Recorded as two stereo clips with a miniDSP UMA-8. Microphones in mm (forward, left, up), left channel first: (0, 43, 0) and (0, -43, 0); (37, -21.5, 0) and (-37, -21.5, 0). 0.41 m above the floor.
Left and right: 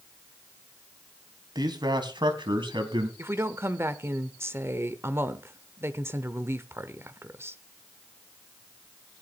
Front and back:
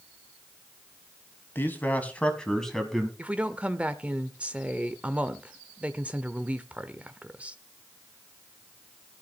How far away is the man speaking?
About 3 m.